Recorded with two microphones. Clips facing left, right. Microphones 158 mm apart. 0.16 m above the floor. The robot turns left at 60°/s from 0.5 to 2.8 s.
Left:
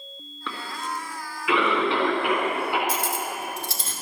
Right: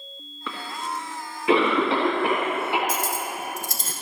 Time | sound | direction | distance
0.5 | a cough | 5° right (ahead or behind) | 1.6 m
2.9 | cutlery clinking | 50° right (ahead or behind) | 1.4 m